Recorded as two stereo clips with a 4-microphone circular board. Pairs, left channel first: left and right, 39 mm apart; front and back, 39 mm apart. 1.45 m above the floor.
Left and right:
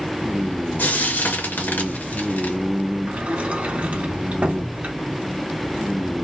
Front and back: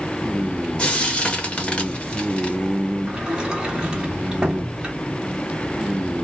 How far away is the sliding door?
About 1.1 m.